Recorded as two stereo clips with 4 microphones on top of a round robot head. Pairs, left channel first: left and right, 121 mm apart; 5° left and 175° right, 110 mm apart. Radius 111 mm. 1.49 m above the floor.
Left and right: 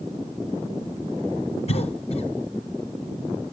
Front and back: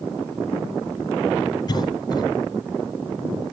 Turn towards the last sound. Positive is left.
turn(degrees=60)